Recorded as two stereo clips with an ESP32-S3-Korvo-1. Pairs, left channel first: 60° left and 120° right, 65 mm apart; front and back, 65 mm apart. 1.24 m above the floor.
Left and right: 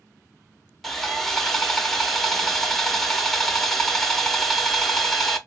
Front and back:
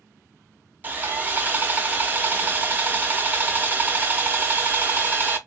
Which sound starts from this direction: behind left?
Sawing, at 0.8 s.